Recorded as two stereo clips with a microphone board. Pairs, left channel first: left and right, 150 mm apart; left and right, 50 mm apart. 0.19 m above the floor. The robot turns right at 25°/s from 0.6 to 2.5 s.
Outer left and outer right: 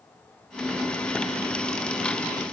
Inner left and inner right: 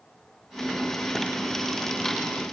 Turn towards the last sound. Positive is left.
No sound to turn to.